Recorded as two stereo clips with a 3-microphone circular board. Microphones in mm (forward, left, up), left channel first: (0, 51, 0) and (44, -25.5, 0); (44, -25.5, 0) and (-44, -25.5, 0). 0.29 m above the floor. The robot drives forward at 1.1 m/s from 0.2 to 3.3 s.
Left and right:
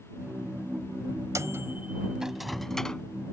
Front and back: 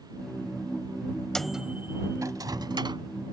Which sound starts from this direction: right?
A microwave, at 1.4 s.